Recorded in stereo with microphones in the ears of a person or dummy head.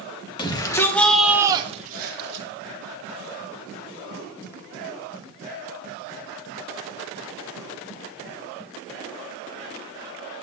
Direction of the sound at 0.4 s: 25° left (ahead or behind).